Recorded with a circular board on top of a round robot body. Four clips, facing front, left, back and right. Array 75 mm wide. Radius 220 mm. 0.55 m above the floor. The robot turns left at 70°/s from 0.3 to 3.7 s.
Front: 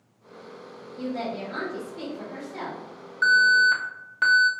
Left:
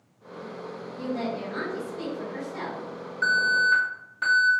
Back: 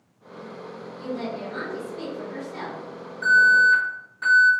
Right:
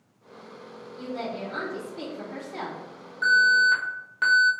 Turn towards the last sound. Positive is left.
turn(degrees=-30)